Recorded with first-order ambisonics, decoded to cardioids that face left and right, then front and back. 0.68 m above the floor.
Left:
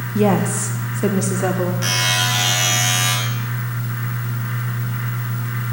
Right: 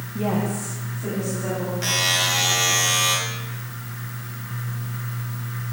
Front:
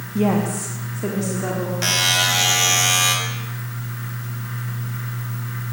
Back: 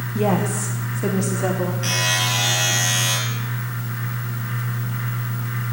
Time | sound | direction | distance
0.1 | a woman speaking | 90° left | 0.9 m
1.8 | a buzzer | 5° left | 3.5 m